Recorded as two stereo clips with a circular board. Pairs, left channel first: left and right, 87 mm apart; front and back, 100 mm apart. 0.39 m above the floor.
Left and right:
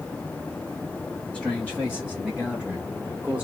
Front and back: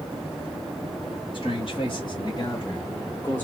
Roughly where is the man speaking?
Ahead.